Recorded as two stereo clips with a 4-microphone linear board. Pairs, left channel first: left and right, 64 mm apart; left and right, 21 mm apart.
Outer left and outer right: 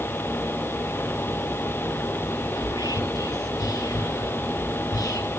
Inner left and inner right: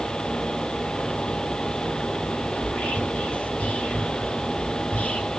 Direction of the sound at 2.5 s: 75° left (ahead or behind).